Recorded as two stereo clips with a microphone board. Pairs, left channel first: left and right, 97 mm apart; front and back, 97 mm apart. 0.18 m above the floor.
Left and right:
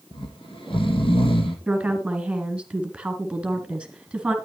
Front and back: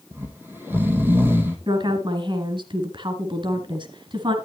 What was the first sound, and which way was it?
Snoring, 115° left.